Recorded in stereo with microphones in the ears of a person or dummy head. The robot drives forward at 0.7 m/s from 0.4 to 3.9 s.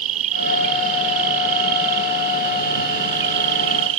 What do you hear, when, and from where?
0.0 s an insect: 40° right (ahead or behind); by 4.0 s 75° right (ahead or behind)